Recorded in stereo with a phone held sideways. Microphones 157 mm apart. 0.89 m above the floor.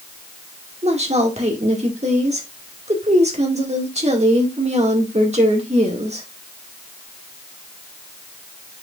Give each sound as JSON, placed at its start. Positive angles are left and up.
{"t": 0.8, "sound": "a woman speaking", "side_deg": -45, "distance_m": 2.0}